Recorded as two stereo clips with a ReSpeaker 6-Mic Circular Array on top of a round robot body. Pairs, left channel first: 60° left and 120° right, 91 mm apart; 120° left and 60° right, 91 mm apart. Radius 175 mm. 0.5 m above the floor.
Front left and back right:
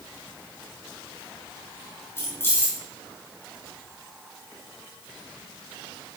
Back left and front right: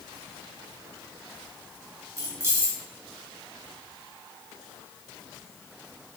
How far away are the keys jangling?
About 4 m.